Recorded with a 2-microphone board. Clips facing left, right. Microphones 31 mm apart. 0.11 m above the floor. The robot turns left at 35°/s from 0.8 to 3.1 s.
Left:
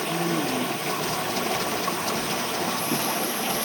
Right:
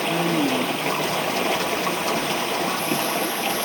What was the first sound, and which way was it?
Running water, 65° right.